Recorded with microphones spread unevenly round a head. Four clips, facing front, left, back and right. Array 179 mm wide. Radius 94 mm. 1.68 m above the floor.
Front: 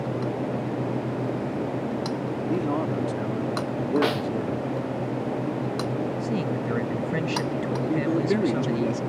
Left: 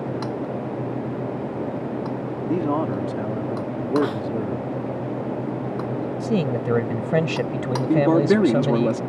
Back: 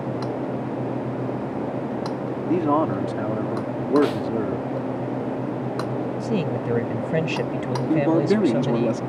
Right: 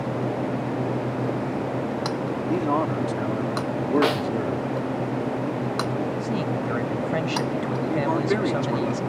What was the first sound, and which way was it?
A man speaking, 175° right.